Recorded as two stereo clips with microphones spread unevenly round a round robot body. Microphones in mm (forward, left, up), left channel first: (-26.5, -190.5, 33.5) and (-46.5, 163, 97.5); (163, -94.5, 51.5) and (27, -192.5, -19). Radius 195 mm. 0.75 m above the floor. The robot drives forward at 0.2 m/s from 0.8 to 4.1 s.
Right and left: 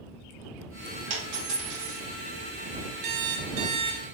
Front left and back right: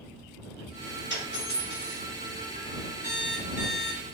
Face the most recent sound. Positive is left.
turn(degrees=140)